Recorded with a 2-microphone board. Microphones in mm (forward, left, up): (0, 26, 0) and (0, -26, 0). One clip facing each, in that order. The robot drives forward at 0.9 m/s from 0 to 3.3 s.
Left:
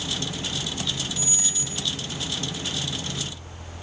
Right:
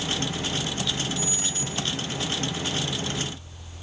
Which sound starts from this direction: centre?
A squeak, at 1.2 s.